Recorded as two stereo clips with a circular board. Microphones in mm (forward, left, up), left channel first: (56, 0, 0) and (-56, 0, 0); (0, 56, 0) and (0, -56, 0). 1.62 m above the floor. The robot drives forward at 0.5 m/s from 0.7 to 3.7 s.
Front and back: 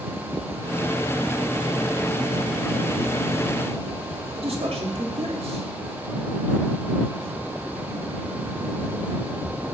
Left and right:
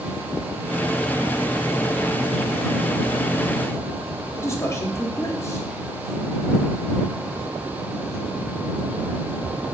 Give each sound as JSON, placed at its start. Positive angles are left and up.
{"t": 4.3, "sound": "a man speaking", "azimuth_deg": 155, "distance_m": 3.0}